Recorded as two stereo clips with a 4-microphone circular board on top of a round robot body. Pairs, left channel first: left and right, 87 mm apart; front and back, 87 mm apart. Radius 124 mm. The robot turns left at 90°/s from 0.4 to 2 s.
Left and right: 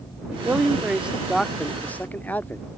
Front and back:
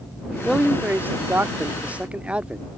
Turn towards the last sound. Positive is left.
turn(degrees=125)